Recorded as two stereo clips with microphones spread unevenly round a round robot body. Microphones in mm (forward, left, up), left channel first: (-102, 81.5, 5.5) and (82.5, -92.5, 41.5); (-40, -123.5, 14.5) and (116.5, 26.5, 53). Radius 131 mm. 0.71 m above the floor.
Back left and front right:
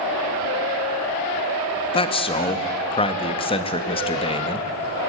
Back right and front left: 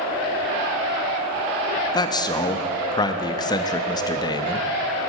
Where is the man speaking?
Straight behind, 0.5 m.